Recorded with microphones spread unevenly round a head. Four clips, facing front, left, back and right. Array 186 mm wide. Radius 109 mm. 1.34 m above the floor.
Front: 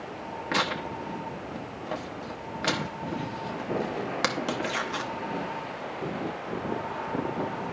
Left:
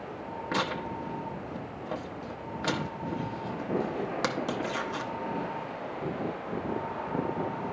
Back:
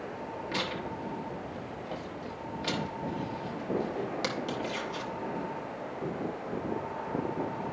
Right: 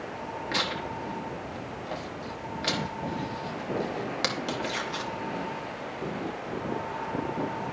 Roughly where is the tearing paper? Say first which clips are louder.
Left 2 dB, front 7 dB; ahead.